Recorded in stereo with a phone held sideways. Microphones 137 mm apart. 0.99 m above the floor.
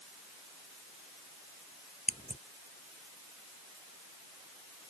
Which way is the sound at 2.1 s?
50° left (ahead or behind).